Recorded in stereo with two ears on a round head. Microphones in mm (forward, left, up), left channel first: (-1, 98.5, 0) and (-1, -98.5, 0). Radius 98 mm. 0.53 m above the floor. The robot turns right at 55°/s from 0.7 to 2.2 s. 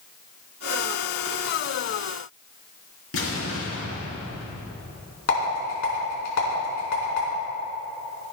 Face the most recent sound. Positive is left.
turn(degrees=65)  # may be behind; listen again after turning